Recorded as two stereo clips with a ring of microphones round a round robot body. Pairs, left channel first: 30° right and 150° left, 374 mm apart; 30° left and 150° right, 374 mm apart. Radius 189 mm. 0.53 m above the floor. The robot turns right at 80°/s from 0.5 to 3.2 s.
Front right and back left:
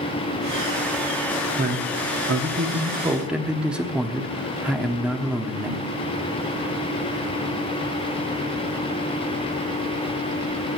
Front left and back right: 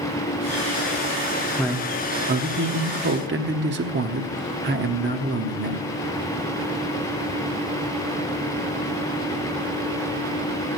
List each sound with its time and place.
1.6 s a man speaking: 105° left, 1.0 m; by 5.8 s 125° right, 1.0 m